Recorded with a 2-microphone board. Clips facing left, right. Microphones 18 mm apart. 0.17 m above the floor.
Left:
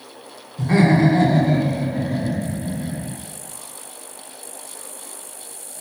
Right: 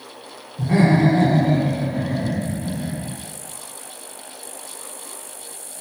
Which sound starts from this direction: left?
Laughter, at 0.6 s.